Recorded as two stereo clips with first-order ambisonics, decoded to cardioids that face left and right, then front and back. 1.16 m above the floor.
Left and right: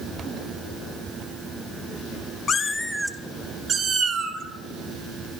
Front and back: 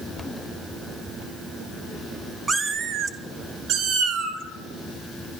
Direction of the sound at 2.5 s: 120° left.